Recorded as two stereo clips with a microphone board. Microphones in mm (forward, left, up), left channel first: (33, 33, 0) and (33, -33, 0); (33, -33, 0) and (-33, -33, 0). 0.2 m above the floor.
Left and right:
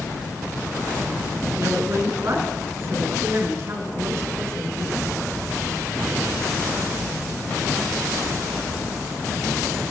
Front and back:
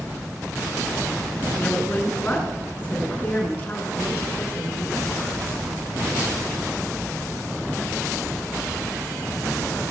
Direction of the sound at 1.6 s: 60° right.